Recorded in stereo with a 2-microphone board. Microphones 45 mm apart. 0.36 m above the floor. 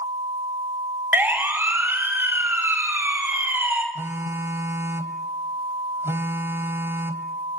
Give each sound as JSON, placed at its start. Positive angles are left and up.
{"t": 1.1, "sound": "a siren", "side_deg": -45, "distance_m": 2.5}
{"t": 4.0, "sound": "a phone buzzing", "side_deg": -60, "distance_m": 1.6}